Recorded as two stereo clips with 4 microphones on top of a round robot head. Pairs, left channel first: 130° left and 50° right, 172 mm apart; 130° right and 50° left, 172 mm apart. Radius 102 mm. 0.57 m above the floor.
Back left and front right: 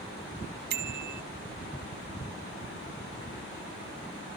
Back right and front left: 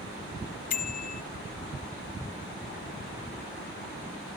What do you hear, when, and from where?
0.7 s a bicycle bell: 85° right